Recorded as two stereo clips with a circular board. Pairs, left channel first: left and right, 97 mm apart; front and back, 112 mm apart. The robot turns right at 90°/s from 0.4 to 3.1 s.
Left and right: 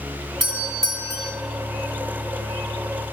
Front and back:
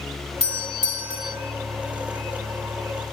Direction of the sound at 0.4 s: 175° left.